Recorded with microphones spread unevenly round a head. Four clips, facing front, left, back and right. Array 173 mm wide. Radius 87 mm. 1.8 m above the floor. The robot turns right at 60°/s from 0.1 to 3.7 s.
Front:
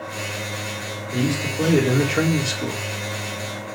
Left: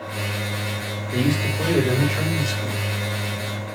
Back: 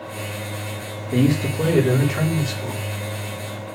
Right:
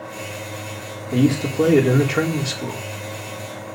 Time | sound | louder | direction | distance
1.1 | a man speaking | right 5 dB, back 4 dB | 125° right | 4.5 m